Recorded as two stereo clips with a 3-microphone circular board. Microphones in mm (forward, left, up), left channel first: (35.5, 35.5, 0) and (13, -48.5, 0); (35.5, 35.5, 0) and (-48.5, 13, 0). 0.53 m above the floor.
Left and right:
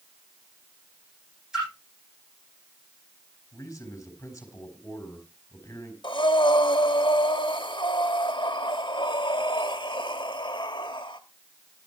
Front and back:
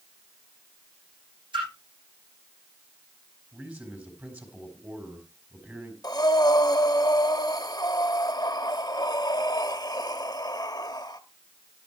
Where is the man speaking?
130° left, 4 m.